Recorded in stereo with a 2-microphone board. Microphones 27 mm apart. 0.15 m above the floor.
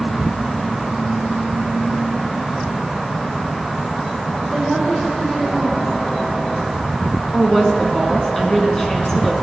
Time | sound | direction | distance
4.5 | a woman speaking | 25° left (ahead or behind) | 7 m
7.3 | a woman speaking | 20° left (ahead or behind) | 1.6 m